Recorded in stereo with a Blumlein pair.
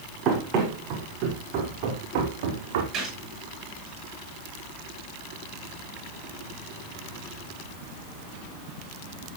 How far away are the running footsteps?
About 4.5 m.